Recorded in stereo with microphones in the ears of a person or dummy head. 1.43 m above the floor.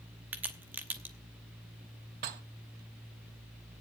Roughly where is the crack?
Centre.